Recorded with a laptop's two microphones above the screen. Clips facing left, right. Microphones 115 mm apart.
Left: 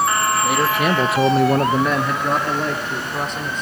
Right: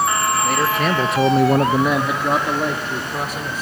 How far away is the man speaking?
About 1.3 m.